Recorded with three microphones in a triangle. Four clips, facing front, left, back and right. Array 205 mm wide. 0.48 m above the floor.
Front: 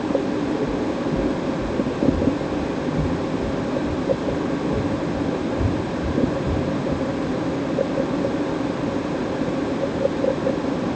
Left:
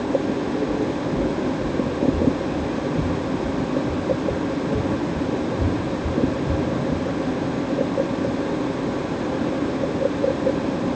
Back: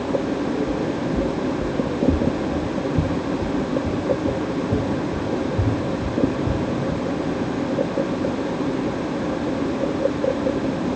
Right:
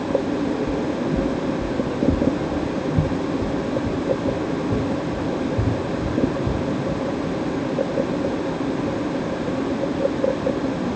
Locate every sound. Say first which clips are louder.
0.7 s footsteps: even, even; 100° right, 1.3 m; by 7.0 s 115° right, 5.5 m